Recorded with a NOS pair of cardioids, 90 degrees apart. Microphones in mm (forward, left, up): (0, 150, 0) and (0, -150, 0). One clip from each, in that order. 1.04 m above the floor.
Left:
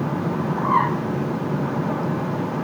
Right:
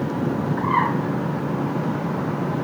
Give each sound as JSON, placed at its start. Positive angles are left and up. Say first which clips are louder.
{"t": 0.6, "sound": "a bird", "louder": "left 1 dB", "azimuth_deg": -30, "distance_m": 1.3}